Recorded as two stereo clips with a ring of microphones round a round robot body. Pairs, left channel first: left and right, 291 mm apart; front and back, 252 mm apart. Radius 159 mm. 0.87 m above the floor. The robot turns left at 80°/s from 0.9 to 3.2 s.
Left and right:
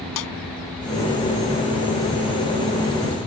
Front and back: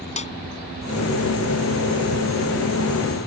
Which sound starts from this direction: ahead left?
A snare drum, at 0.2 s.